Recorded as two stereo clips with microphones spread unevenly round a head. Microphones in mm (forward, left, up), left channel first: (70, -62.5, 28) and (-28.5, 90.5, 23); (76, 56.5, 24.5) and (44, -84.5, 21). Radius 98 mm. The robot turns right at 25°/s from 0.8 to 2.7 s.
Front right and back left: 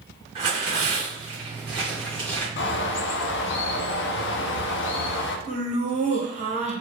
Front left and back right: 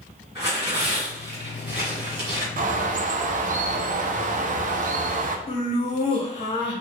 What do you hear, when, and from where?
0.3 s tearing paper: 175° right, 1.6 m; by 2.5 s 135° right, 1.6 m
2.6 s a bird: 80° right, 0.6 m; by 5.4 s 75° right, 0.6 m
5.5 s laughter: 105° left, 1.2 m